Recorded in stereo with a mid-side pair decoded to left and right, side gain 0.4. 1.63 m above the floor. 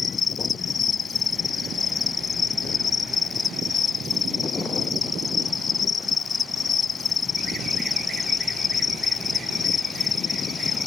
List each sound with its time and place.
0.0 s an insect: 50° left